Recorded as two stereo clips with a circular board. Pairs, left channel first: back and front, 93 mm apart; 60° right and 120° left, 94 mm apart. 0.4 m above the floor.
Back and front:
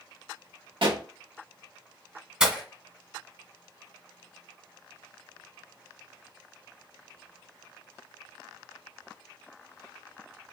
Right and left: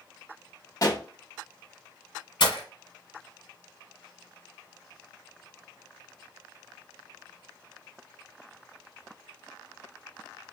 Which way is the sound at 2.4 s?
80° right.